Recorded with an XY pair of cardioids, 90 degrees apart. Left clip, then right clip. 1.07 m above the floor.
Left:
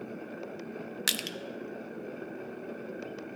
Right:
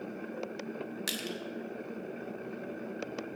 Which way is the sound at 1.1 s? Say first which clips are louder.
Left 6 dB; 60° left.